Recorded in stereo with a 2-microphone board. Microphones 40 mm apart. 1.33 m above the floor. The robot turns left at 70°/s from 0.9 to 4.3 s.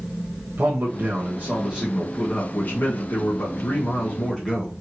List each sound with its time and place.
0.6 s a man speaking: 105° right, 1.3 m; by 4.7 s 15° left, 1.3 m